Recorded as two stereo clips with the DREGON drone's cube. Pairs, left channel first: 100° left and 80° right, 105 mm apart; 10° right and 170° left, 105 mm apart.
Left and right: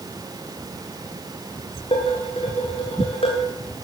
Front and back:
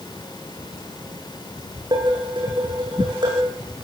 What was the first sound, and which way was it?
Dishes clattering, 125° left.